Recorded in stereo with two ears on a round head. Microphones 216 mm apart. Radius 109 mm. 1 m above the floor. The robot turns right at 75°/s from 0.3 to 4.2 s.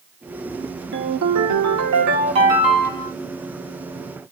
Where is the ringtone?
135° right, 1.5 m; by 3.1 s 30° left, 1.5 m.